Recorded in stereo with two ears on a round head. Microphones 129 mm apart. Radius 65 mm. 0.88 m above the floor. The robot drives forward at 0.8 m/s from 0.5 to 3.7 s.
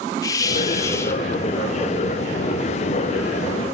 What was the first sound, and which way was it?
A hiss, 25° left (ahead or behind).